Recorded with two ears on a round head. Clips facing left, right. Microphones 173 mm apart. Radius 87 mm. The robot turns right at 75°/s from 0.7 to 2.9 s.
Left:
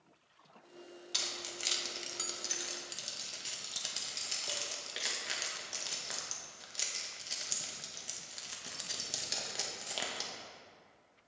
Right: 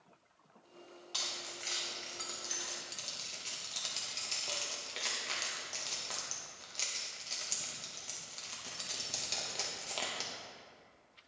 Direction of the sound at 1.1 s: 20° left (ahead or behind).